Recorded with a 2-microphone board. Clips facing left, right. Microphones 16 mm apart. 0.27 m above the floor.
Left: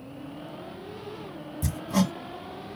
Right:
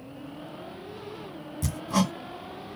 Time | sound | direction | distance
1.6 | hammering | 40° right (ahead or behind) | 1.8 m